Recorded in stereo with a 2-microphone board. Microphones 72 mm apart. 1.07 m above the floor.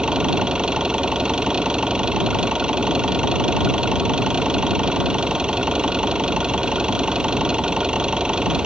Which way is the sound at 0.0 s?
10° right (ahead or behind).